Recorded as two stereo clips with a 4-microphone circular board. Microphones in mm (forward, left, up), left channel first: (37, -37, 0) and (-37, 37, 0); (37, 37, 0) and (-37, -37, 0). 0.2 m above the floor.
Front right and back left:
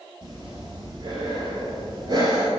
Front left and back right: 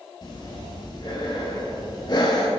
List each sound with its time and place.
0.2 s breathing: 90° left, 1.5 m